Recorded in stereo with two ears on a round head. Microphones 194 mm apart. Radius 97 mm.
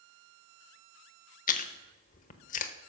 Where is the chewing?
35° left (ahead or behind), 0.8 m.